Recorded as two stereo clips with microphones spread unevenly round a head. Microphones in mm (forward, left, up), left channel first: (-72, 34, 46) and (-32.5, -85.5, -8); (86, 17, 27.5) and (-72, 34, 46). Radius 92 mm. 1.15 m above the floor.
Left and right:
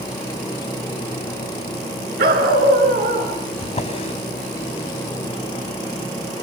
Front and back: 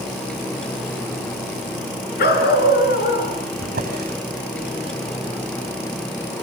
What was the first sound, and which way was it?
A dog barking, 45° right.